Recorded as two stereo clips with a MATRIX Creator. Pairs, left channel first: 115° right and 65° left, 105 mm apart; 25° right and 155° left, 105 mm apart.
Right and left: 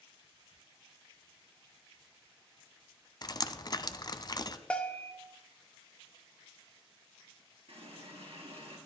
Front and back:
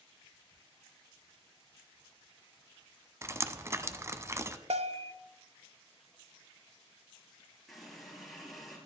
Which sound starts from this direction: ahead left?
A running tap, at 7.7 s.